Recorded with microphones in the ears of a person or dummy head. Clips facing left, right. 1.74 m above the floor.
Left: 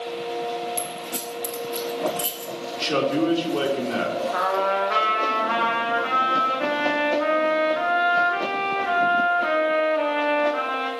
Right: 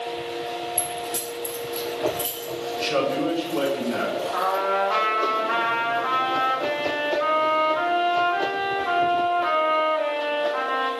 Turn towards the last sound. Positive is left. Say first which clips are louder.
# left 1 dB
turn(degrees=35)  # may be behind; listen again after turning